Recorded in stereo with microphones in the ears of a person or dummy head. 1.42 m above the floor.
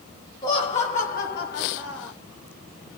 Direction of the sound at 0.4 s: 20° left (ahead or behind).